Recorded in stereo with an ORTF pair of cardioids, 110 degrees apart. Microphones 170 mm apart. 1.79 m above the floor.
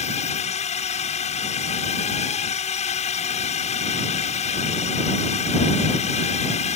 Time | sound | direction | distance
0.0 | a drone | 40° left | ?